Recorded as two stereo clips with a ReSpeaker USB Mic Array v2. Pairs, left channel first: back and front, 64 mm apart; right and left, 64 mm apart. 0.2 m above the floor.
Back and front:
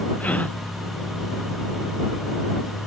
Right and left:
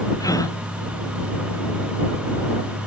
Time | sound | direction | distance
0.2 | a gasp | 115° right | ?